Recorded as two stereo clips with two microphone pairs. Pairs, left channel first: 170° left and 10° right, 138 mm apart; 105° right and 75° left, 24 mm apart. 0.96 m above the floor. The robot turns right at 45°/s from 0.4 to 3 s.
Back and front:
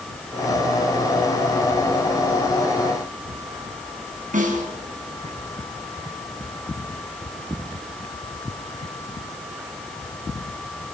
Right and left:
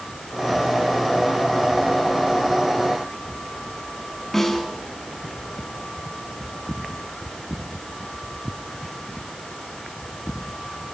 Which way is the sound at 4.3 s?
25° right.